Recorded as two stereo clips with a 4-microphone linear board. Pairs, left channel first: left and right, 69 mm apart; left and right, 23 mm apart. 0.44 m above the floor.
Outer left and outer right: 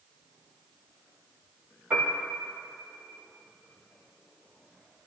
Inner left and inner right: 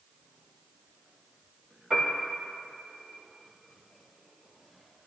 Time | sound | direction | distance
1.9 | a piano | 20° right (ahead or behind) | 5.5 m